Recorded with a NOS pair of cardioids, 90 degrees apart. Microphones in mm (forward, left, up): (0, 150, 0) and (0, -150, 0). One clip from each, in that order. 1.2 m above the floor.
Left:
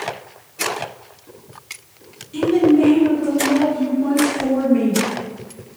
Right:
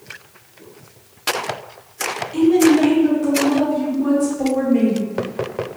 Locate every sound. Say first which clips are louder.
2.3 s a woman speaking: right 1 dB; 20° right, 1.7 m; by 5.0 s 80° right, 1.9 m